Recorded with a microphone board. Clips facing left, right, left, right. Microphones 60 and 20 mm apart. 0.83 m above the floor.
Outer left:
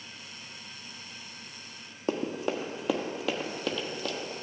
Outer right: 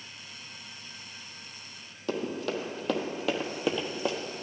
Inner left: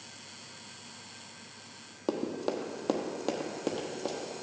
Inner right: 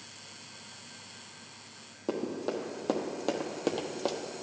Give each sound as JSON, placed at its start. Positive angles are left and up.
{"t": 2.1, "sound": "running footsteps", "side_deg": 30, "distance_m": 1.4}